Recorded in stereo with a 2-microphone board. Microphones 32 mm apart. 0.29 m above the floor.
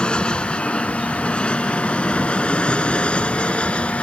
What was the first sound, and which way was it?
An aircraft, 30° left (ahead or behind).